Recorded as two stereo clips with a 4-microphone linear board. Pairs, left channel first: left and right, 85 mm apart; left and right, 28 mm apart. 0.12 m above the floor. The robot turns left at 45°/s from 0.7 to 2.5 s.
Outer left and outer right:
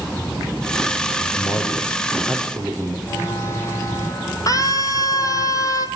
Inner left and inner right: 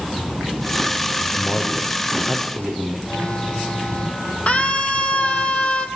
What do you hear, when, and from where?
1.2 s a man speaking: 50° left, 4.5 m; by 3.0 s 10° right, 4.5 m
3.1 s an alarm: 30° left (ahead or behind), 5.5 m
4.5 s a scream: 40° left (ahead or behind), 3.5 m